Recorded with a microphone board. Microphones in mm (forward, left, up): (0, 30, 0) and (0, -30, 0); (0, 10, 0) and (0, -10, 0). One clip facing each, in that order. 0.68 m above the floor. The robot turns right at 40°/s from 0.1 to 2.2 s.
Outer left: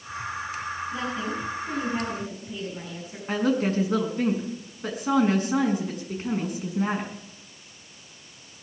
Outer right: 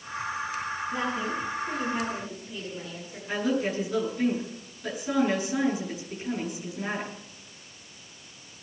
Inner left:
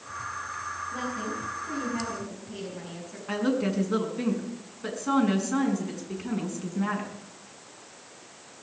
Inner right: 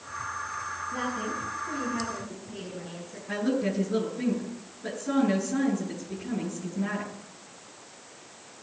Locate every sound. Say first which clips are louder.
0.9 s a woman speaking: outer right 2 dB, inner right 3 dB; 35° right, 6.5 m; by 3.2 s 20° left, 6.5 m
3.3 s a woman speaking: outer left 3 dB, inner left 1 dB; 45° left (ahead or behind), 6.5 m